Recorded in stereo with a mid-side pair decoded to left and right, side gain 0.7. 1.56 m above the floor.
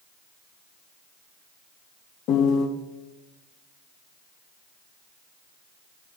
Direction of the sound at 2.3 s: 55° left.